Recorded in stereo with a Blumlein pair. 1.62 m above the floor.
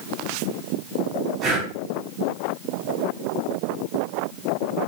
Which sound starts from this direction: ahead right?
Breathing, at 1.4 s.